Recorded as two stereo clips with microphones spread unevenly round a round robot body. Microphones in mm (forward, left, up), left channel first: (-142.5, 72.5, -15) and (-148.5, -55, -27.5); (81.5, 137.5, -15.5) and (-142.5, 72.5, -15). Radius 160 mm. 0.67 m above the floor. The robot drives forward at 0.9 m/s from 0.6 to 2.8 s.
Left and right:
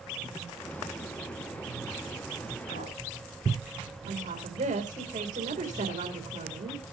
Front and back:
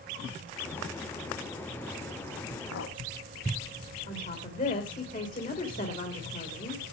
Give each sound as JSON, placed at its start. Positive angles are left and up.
{"t": 2.7, "sound": "a clink", "azimuth_deg": 40, "distance_m": 3.0}
{"t": 4.1, "sound": "a woman speaking", "azimuth_deg": -50, "distance_m": 2.5}